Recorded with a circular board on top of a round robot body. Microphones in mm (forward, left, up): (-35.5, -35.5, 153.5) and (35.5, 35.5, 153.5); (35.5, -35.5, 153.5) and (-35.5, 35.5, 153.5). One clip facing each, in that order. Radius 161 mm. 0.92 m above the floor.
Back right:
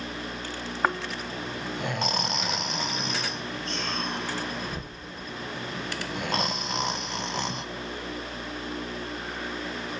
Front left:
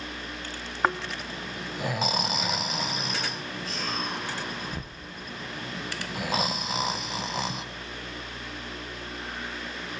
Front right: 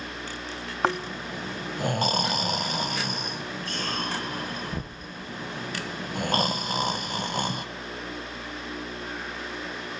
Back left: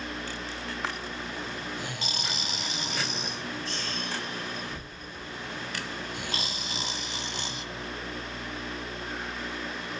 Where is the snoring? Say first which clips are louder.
Front left 1 dB, front right 12 dB; 40° right, 1.0 m.